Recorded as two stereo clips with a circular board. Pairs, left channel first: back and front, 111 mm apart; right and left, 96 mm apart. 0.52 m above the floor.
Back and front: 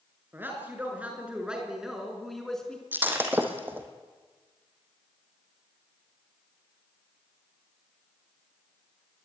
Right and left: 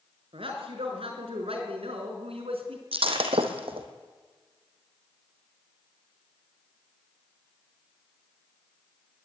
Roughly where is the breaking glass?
Left.